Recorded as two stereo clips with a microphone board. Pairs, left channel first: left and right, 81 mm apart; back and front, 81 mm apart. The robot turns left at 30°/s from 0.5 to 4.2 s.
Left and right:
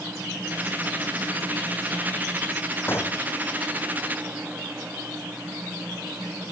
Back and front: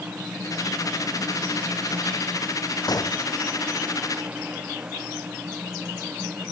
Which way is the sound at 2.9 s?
150° left.